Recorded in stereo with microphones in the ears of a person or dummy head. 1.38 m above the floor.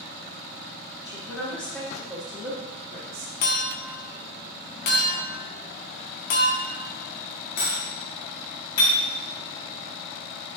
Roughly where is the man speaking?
Centre.